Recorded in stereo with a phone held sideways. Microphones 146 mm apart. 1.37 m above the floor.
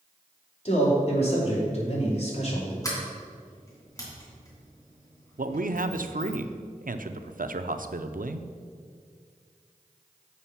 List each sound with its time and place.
0.7 s a man speaking: 50° left (ahead or behind), 2.5 m
2.8 s a sliding door: 25° left (ahead or behind), 3 m
5.4 s a man speaking: 70° right (ahead or behind), 0.5 m